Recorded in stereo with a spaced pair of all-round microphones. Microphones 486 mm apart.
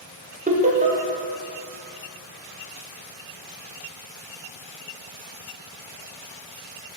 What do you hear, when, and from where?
0.5 s laughter: 15° right (ahead or behind), 0.7 m